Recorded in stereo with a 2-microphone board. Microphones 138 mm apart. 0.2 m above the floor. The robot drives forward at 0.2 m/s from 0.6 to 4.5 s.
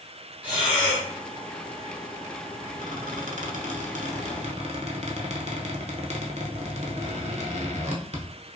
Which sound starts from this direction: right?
A squeak, at 2.8 s.